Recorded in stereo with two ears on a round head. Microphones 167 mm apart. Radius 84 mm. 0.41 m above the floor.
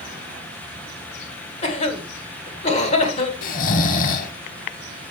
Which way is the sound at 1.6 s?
35° left (ahead or behind).